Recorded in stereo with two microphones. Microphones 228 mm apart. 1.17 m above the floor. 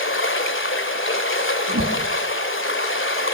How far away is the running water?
About 2 m.